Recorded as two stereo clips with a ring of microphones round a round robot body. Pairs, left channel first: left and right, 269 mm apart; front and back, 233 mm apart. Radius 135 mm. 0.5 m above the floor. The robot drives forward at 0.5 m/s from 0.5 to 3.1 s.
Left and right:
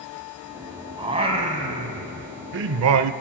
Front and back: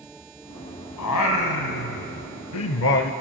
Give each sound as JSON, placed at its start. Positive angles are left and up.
{"t": 1.0, "sound": "singing", "azimuth_deg": -20, "distance_m": 1.4}